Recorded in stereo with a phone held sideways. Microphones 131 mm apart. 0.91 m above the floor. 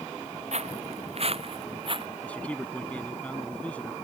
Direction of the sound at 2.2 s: 10° left (ahead or behind).